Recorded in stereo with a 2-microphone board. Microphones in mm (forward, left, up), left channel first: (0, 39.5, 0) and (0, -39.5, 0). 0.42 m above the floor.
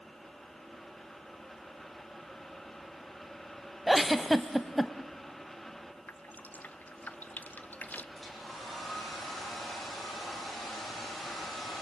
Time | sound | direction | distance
3.9 | a giggle | centre (ahead or behind) | 0.8 m
6.1 | dripping | 20° left (ahead or behind) | 0.7 m
8.2 | a hair dryer | centre (ahead or behind) | 6.5 m